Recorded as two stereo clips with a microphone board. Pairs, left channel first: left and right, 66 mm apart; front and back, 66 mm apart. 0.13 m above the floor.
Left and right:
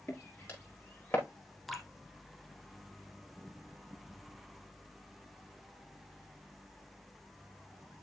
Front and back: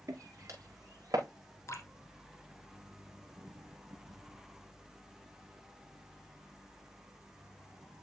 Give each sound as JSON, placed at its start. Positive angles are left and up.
{"t": 0.1, "sound": "footsteps", "azimuth_deg": 140, "distance_m": 4.5}
{"t": 1.7, "sound": "dripping", "azimuth_deg": 0, "distance_m": 1.3}